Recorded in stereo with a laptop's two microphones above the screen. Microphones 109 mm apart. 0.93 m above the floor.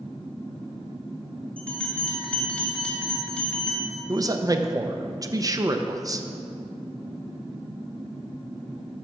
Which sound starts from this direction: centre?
A bell, at 1.6 s.